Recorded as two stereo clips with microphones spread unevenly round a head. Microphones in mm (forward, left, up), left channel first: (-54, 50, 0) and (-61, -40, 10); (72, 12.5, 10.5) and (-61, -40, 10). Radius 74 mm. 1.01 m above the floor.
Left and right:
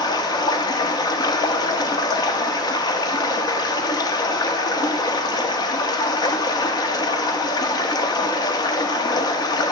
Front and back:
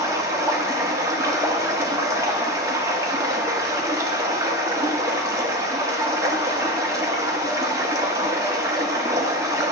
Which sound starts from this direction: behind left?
Running water, at 0.0 s.